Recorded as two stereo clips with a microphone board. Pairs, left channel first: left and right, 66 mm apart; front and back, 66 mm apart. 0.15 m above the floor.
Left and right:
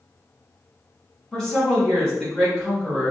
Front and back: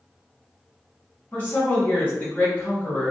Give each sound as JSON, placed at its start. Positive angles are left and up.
{"t": 1.3, "sound": "a woman speaking", "azimuth_deg": 20, "distance_m": 1.4}